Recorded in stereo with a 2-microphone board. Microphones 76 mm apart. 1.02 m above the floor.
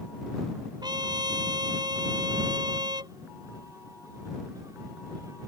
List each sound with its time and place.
0.8 s a trumpet: 65° right (ahead or behind)